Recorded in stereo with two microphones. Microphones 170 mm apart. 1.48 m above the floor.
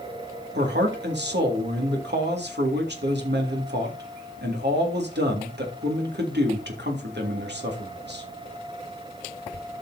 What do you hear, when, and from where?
0.6 s a man speaking: 85° right, 2.5 m